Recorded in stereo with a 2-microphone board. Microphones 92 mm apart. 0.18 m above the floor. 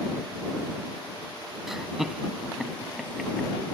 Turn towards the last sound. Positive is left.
turn(degrees=-5)  # may be behind; listen again after turning